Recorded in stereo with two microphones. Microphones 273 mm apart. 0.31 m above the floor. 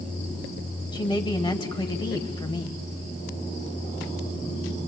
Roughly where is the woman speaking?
Centre.